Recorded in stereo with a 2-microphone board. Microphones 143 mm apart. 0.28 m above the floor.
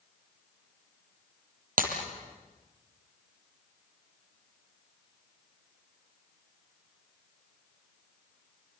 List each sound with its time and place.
1.8 s breaking glass: 75° right (ahead or behind), 5 m